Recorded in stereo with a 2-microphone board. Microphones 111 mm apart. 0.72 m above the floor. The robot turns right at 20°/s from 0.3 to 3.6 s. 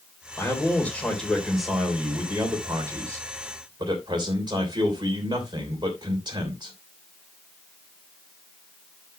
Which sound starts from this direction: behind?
A man speaking, at 0.4 s.